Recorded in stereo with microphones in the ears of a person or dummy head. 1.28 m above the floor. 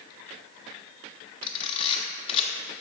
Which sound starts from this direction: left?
A camera shutter, at 1.4 s.